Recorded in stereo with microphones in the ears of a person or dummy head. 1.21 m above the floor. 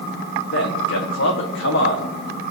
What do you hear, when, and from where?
0.5 s a man speaking: 65° left (ahead or behind), 2 m